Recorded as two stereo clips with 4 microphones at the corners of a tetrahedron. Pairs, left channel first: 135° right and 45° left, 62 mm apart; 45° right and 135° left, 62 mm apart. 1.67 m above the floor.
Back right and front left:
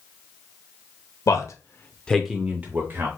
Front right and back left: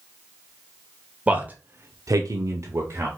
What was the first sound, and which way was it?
A man speaking, 155° right.